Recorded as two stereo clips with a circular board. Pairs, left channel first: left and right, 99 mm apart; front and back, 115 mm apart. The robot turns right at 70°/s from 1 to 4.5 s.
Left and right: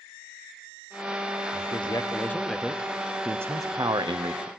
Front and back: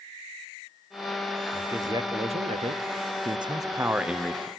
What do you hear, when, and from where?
1.5 s a man speaking: 105° left, 0.7 m; by 2.8 s 165° right, 0.7 m
3.2 s a man speaking: 160° right, 0.5 m; by 4.5 s 70° right, 0.5 m